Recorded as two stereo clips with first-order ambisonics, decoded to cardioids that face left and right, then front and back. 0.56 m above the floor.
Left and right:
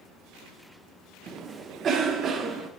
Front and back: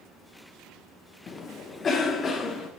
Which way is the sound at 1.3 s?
55° right.